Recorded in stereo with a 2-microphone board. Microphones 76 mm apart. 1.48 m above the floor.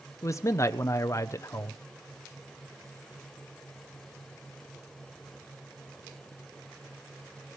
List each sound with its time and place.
0.2 s a man speaking: 40° left (ahead or behind), 0.6 m